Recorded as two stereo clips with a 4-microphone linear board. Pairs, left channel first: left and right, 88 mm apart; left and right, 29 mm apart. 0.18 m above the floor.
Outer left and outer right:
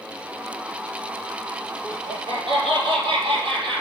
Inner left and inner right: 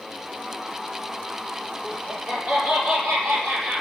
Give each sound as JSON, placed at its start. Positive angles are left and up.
{"t": 1.8, "sound": "laughter", "side_deg": -60, "distance_m": 4.5}